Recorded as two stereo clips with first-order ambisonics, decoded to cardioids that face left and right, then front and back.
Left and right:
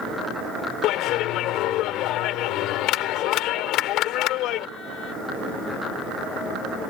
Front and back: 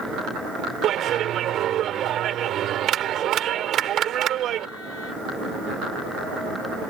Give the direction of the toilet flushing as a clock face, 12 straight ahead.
I don't hear a toilet flushing.